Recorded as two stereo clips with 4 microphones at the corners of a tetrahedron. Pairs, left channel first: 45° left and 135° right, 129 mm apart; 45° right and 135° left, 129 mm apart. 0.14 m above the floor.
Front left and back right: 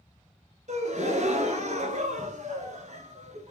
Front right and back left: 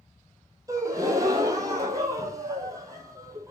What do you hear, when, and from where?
0.7 s a gasp: 160° right, 0.9 m